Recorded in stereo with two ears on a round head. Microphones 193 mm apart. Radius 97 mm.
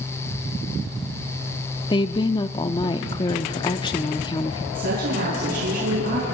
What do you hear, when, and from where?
1.9 s a woman speaking: 20° left (ahead or behind), 0.7 m
4.7 s a woman speaking: 45° right (ahead or behind), 6.5 m